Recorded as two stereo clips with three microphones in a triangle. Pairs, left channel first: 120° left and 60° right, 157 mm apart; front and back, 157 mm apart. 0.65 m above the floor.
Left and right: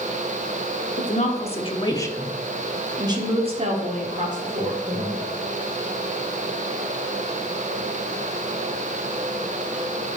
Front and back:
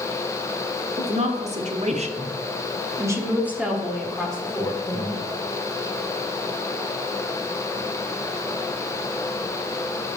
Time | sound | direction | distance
1.0 | a woman speaking | 145° left | 1.4 m